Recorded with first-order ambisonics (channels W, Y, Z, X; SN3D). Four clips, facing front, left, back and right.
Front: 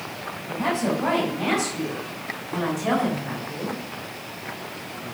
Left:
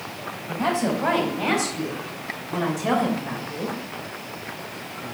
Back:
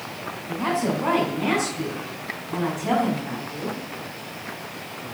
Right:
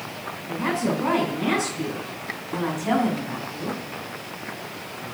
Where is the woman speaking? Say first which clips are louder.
Left 1 dB, even; 70° left, 4.5 m; by 3.8 s 60° left, 2.5 m.